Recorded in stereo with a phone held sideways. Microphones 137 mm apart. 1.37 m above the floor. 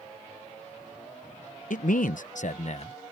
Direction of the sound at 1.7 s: 75° left (ahead or behind).